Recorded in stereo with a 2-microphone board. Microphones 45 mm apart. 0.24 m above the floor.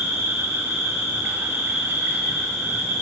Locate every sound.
0.0 s an insect: 60° right (ahead or behind), 6 m